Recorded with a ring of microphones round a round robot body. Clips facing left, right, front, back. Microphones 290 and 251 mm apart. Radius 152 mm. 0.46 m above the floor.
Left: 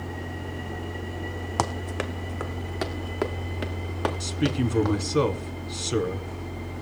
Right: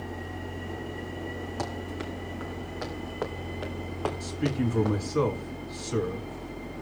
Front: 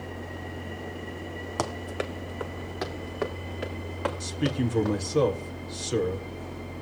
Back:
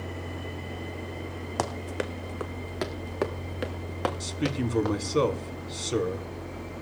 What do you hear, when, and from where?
1.6 s running footsteps: 95° left, 1.6 m; by 5.0 s 155° left, 4 m
4.2 s a man speaking: 105° left, 2.5 m